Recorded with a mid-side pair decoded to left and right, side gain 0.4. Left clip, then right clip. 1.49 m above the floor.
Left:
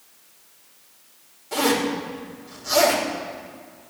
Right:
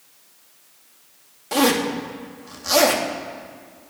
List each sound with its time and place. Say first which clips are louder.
1.5 s a zipper: right 2 dB; 70° right, 2.5 m